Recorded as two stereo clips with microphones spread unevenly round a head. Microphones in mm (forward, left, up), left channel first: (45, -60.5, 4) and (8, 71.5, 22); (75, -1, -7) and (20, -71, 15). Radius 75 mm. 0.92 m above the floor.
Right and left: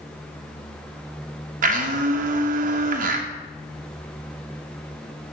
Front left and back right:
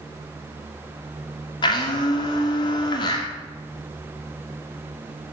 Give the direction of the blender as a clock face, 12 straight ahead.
9 o'clock.